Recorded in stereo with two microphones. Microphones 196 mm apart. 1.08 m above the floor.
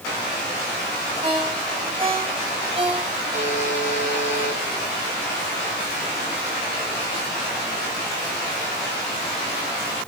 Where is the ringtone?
30° right (ahead or behind), 4 m.